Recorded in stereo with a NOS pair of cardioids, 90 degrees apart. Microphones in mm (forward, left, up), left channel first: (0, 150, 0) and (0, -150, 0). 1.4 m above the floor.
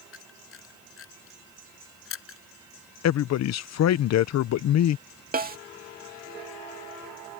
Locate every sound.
0.1 s a camera shutter: 45° left
3.0 s a man speaking: 65° left
5.3 s a snare drum: 30° right